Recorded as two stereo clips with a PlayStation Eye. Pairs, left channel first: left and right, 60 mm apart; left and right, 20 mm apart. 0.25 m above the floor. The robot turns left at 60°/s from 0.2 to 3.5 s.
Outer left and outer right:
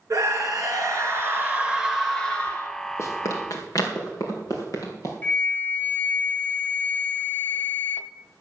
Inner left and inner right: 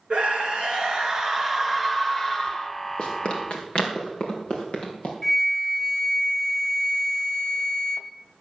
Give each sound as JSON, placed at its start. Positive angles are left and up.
{"t": 0.1, "sound": "a scream", "azimuth_deg": -70, "distance_m": 3.0}
{"t": 3.0, "sound": "running footsteps", "side_deg": 50, "distance_m": 4.5}
{"t": 5.2, "sound": "a flute", "side_deg": 30, "distance_m": 0.7}